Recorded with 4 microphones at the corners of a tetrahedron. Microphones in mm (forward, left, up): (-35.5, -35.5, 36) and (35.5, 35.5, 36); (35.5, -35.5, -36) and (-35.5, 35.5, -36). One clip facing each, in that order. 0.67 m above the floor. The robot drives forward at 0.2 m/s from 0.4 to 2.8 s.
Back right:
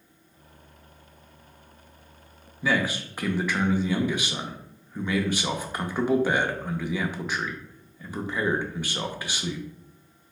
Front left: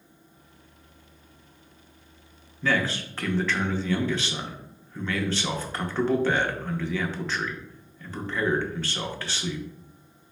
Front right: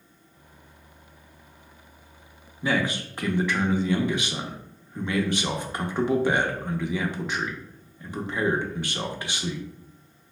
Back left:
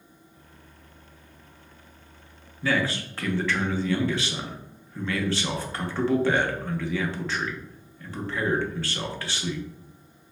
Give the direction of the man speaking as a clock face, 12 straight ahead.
2 o'clock.